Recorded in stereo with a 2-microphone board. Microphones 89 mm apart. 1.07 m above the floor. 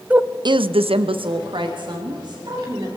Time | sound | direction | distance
0.1 | a woman speaking | 15° right (ahead or behind) | 0.6 m